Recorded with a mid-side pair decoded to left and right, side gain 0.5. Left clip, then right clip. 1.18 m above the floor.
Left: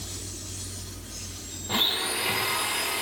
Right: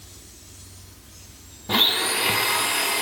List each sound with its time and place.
1.7 s a blender: 40° right, 2 m